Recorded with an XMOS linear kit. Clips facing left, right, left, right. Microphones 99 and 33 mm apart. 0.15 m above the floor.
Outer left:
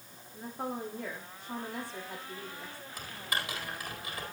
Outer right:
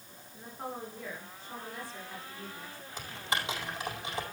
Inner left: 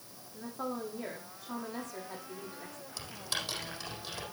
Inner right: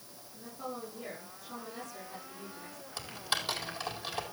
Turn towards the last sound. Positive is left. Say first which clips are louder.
# outer right 2 dB, inner right 3 dB
turn(degrees=-25)  # may be behind; listen again after turning